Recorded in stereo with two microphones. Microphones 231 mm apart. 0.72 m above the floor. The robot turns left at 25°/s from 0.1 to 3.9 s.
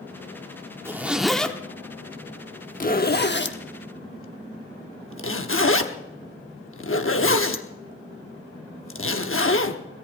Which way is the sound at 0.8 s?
10° right (ahead or behind).